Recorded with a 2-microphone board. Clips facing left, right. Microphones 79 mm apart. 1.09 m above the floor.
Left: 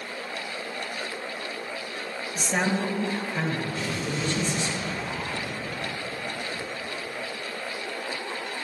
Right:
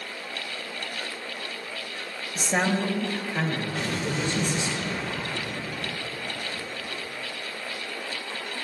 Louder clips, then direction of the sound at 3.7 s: Right 1 dB; 80° right.